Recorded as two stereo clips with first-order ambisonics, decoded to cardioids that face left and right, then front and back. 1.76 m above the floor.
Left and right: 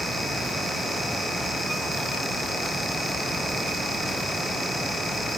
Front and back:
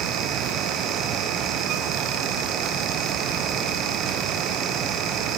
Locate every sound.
Only background noise.